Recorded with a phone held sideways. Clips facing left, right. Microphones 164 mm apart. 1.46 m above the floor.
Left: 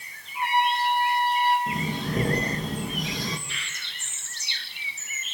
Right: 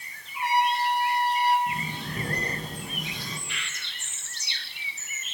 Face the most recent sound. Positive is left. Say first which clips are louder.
# right 1 dB
turn(degrees=35)  # may be behind; listen again after turning